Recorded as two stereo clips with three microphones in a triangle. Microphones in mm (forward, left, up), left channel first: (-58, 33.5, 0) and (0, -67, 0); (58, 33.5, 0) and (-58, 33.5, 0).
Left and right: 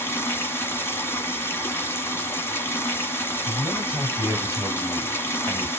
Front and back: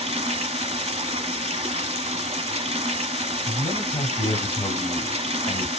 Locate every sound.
0.0 s running water: 170° right, 1.3 m
3.5 s a man speaking: 10° right, 2 m